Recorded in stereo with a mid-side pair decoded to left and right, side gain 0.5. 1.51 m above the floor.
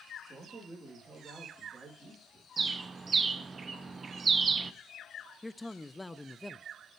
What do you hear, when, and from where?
0.2 s a man speaking: 20° right, 3 m
2.6 s a bird: 35° right, 0.9 m
5.4 s a man speaking: 10° left, 0.6 m